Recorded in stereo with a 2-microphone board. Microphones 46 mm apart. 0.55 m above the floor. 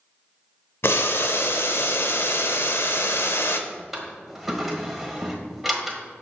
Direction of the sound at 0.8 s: 65° left (ahead or behind).